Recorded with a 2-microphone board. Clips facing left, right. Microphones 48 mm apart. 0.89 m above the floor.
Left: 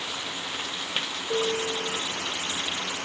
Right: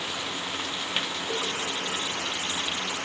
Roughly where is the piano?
Right.